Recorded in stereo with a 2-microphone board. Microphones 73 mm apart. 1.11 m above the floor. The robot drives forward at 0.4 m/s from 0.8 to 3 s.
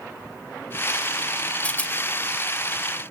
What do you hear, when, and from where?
1.6 s a rattle: 20° left (ahead or behind)